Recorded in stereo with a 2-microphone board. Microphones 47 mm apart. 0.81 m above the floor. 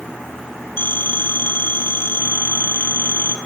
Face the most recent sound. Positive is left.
turn(degrees=50)  # may be behind; listen again after turning